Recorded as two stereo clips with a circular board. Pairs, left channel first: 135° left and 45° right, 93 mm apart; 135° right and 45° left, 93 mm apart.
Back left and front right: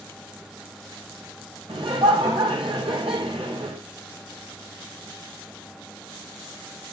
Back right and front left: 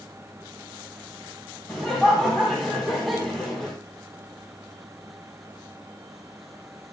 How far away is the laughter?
About 4.5 m.